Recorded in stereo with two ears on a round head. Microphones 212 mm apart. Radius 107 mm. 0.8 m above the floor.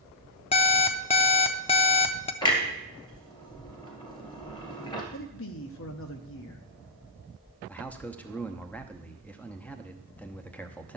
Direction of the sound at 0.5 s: 25° left (ahead or behind).